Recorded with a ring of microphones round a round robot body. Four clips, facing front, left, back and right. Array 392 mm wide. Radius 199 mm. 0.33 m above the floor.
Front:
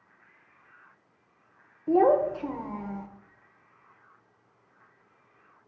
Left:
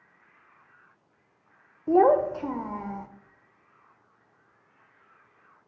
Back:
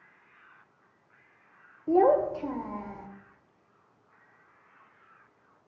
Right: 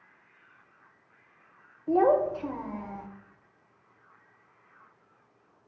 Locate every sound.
1.9 s a child speaking: 85° left, 0.9 m